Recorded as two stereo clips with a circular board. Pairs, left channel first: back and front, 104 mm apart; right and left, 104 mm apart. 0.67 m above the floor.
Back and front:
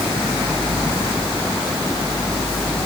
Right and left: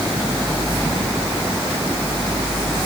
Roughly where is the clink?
No clink in this recording.